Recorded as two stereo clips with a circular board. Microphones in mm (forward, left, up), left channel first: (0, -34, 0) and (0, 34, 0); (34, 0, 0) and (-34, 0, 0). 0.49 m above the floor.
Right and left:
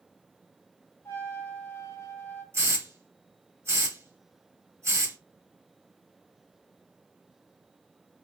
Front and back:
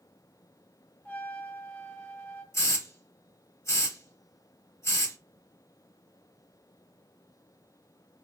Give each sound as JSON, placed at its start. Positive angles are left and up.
{"t": 1.1, "sound": "a trumpet", "azimuth_deg": -55, "distance_m": 1.0}
{"t": 2.5, "sound": "a hiss", "azimuth_deg": 45, "distance_m": 0.8}